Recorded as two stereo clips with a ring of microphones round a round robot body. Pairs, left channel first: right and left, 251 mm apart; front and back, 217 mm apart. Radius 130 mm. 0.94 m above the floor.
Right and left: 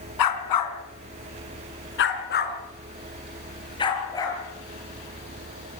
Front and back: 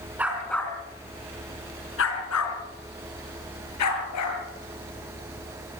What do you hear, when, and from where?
0.2 s a dog barking: 95° right, 3 m; by 4.4 s 15° right, 5.5 m